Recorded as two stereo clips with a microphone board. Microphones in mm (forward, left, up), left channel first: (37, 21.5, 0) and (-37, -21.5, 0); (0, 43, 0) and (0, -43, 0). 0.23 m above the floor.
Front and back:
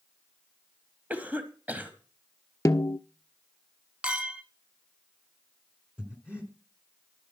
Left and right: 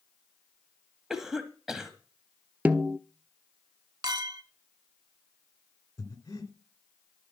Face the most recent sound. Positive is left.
turn(degrees=135)